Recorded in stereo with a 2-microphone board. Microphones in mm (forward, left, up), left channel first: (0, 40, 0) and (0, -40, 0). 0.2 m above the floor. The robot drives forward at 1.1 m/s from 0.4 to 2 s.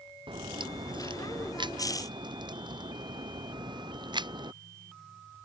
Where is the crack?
80° right; by 4.5 s 65° right (ahead or behind).